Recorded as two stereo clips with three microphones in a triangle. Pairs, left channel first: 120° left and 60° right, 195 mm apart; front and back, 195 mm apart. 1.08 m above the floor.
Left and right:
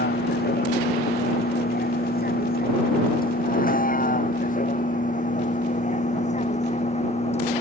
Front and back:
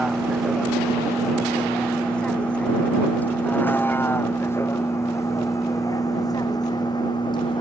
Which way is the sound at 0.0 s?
90° left.